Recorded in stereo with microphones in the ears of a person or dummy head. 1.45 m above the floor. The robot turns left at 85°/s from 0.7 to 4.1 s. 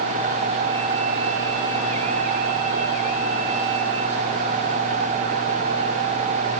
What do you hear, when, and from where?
Only background noise.